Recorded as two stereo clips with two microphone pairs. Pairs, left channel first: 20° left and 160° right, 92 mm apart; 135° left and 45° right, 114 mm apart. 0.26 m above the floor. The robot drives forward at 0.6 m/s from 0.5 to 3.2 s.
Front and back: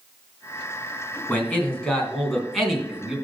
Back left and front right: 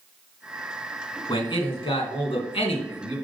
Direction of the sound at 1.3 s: 90° left.